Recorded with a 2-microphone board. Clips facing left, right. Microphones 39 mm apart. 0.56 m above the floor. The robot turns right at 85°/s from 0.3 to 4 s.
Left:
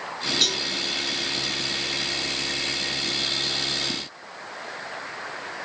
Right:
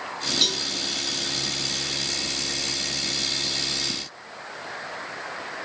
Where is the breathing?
No breathing in this recording.